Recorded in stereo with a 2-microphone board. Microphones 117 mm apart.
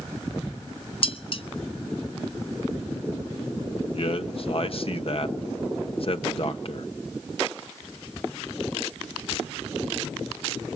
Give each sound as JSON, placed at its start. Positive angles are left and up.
{"t": 1.0, "sound": "dishes clattering", "side_deg": 50, "distance_m": 0.7}
{"t": 3.9, "sound": "a man speaking", "side_deg": 55, "distance_m": 1.3}